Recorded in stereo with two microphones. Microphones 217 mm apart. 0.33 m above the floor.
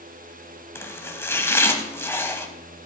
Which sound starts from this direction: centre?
Chopping, at 0.8 s.